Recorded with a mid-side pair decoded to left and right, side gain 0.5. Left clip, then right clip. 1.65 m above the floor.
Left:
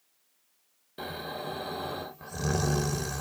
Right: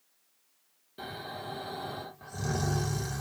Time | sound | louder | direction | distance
1.0 | snoring | left 3 dB | 35° left | 1.2 m